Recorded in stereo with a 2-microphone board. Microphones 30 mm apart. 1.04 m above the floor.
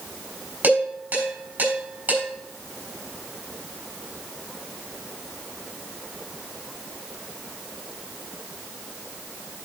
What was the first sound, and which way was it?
Dishes clattering, 85° right.